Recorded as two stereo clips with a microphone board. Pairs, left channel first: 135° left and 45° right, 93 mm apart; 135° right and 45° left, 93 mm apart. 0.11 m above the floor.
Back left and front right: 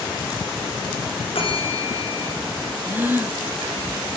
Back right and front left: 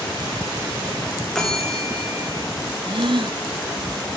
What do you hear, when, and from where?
1.4 s a bell: 140° left, 9.5 m
2.9 s a gasp: 25° left, 0.8 m